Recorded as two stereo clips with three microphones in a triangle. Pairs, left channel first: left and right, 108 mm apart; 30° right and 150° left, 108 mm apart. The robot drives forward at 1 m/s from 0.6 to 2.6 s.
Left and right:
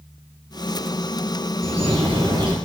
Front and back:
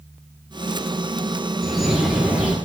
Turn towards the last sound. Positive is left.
turn(degrees=-130)